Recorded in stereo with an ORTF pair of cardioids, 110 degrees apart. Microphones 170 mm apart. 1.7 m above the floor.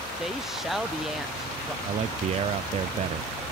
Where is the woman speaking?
5° right.